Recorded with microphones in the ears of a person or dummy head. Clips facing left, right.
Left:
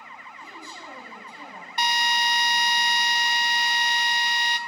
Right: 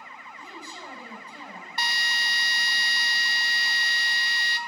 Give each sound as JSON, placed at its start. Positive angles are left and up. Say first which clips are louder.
{"t": 0.4, "sound": "a woman speaking", "louder": "right 2 dB", "side_deg": -50, "distance_m": 6.5}
{"t": 1.8, "sound": "a drill", "louder": "left 9 dB", "side_deg": 15, "distance_m": 0.7}